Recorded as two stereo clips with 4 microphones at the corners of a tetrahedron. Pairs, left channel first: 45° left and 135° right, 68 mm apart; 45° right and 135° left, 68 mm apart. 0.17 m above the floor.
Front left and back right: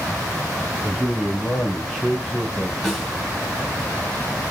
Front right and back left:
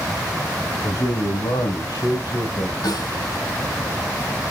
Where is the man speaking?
45° right, 4 m; by 2.7 s 40° right, 5 m.